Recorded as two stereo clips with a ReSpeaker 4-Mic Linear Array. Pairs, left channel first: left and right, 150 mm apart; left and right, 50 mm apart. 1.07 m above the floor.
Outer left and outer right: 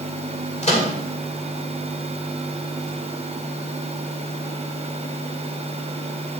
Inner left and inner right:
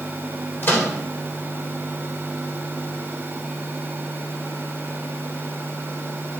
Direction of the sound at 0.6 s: 45° left (ahead or behind).